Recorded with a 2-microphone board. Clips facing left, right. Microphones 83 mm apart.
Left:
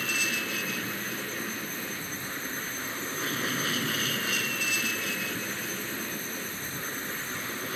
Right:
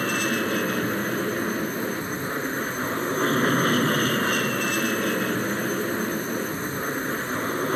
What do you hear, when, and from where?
0.0 s an aircraft: 50° right (ahead or behind)